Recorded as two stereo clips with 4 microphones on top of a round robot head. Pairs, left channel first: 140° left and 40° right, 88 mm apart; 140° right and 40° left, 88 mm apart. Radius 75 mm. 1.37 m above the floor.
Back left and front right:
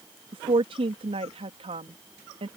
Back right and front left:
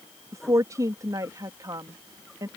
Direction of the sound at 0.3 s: 15° right.